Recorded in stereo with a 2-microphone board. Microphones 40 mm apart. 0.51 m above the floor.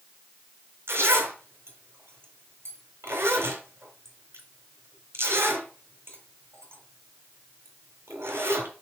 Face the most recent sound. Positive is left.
turn(degrees=-80)